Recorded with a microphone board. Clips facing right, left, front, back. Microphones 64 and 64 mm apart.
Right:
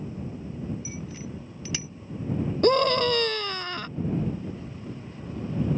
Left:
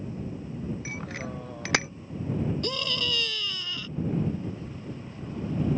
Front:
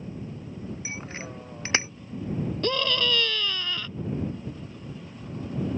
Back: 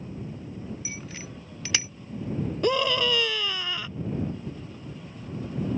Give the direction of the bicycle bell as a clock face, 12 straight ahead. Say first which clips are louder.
Left 2 dB, front 3 dB; 10 o'clock.